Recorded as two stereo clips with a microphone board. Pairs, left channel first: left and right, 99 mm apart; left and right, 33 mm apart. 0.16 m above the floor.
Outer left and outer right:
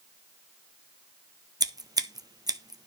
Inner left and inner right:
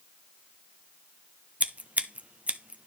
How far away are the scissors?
About 0.7 m.